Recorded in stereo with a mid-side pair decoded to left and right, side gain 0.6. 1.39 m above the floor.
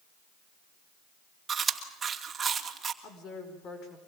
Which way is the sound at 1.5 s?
30° right.